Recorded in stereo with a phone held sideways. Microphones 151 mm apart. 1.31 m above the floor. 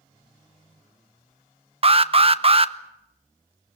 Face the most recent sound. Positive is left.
turn(degrees=-40)  # may be behind; listen again after turning